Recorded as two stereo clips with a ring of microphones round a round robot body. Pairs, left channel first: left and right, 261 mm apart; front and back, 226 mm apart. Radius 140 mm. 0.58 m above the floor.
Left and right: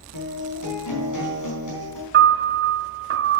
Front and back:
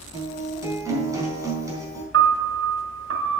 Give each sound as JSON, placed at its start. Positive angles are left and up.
{"t": 0.1, "sound": "a guitar", "azimuth_deg": 105, "distance_m": 4.0}
{"t": 2.1, "sound": "a piano", "azimuth_deg": -135, "distance_m": 1.0}